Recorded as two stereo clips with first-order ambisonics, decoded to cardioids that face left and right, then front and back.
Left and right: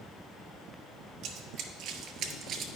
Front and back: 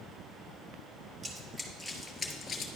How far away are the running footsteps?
About 1.1 m.